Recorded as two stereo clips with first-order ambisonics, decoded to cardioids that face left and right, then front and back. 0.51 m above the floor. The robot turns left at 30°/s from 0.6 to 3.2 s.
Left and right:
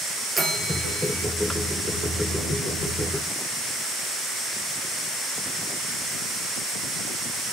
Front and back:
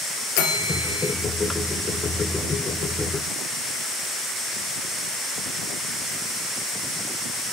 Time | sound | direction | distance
0.4 | a bell | 5° right | 2 m